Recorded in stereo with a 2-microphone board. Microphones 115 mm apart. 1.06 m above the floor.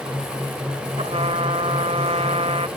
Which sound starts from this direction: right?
A trumpet, at 1.0 s.